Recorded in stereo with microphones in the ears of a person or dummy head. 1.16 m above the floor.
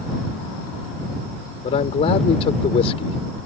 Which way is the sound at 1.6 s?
30° left (ahead or behind).